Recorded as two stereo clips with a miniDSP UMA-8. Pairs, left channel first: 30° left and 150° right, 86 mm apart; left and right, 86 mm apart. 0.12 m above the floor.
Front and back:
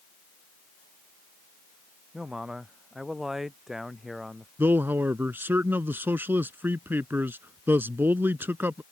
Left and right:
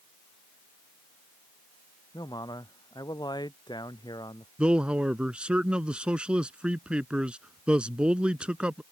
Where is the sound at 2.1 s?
125° left; by 4.5 s 120° left.